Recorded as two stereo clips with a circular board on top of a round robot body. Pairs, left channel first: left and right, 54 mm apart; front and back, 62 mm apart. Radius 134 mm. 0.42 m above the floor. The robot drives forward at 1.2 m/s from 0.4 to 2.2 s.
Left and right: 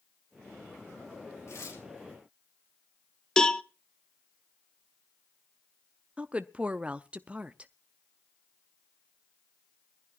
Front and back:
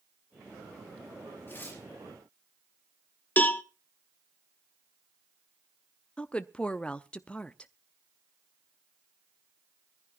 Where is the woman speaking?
50° right, 0.8 m.